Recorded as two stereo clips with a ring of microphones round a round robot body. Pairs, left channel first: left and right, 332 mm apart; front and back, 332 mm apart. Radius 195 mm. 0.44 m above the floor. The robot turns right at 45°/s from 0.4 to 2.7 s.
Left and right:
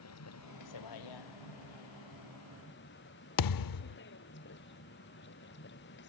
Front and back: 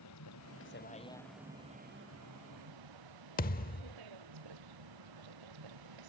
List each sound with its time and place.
0.0 s a vehicle: 50° left; by 6.1 s 150° left
3.4 s a thud: 65° left